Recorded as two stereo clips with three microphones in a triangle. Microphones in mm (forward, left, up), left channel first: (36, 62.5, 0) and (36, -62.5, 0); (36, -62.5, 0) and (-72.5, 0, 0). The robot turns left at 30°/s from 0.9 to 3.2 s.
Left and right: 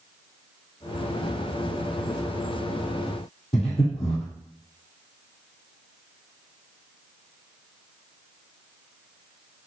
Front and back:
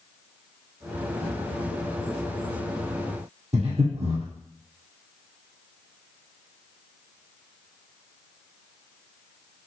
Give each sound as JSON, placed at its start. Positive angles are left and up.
{"t": 3.5, "sound": "breathing", "azimuth_deg": 120, "distance_m": 2.0}